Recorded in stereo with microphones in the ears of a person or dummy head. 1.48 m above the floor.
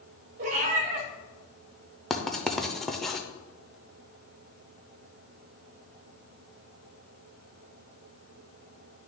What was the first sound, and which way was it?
A cat meowing, 40° right (ahead or behind).